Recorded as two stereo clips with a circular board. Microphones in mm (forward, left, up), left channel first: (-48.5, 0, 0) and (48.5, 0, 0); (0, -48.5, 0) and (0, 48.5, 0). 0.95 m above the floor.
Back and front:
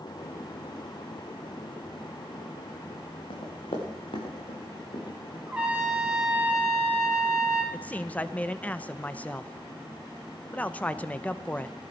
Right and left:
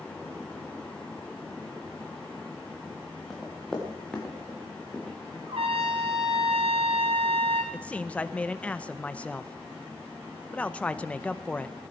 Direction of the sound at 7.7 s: 140° right.